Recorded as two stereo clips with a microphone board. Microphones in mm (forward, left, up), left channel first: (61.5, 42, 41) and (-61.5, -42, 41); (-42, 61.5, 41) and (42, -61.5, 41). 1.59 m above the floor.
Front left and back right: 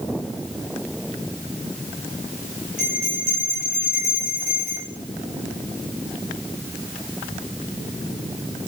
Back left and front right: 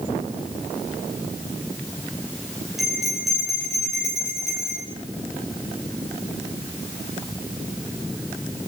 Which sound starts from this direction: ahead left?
A bell, at 2.8 s.